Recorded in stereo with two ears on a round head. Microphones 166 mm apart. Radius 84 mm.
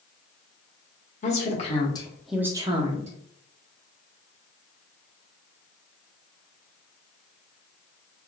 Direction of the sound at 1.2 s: 35° left (ahead or behind).